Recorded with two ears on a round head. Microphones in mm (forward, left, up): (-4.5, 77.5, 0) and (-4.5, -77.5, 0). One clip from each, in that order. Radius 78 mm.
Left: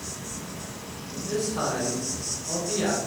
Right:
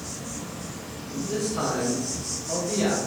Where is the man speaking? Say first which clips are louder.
Even; 35° left (ahead or behind), 1.7 m.